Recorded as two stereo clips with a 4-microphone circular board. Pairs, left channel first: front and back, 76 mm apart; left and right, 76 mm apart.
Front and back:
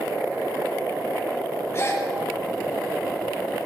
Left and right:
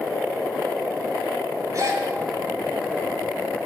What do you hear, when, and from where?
1.7 s a gasp: 50° right, 2.0 m